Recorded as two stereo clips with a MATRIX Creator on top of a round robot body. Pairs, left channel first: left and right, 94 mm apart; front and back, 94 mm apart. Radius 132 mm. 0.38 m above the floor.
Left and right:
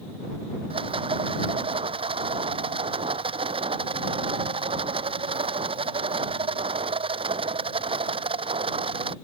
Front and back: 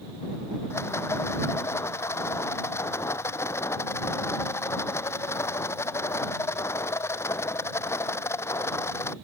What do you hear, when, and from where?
0.7 s a rattle: 65° right